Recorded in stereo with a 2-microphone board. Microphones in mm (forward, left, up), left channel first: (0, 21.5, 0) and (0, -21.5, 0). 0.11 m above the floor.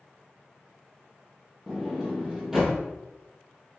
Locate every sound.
1.7 s a sliding door: 10° right (ahead or behind), 1.4 m